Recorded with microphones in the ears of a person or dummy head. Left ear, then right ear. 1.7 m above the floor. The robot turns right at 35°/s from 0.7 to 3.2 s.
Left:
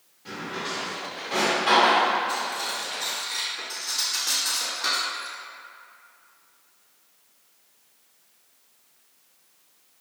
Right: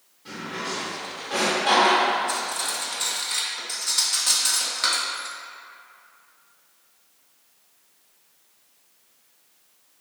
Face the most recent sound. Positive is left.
turn(degrees=-55)  # may be behind; listen again after turning